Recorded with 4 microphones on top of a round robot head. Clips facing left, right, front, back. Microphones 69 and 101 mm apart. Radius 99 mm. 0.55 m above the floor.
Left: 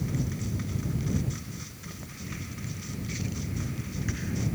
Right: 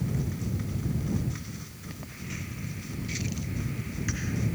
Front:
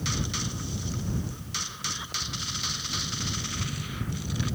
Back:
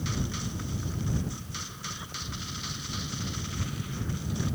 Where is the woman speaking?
No woman speaking in this recording.